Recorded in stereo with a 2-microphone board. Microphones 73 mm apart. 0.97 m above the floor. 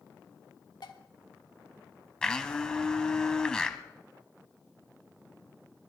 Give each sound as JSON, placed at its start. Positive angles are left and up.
{"t": 0.8, "sound": "dishes clattering", "side_deg": 75, "distance_m": 1.3}
{"t": 2.2, "sound": "a blender", "side_deg": 10, "distance_m": 1.0}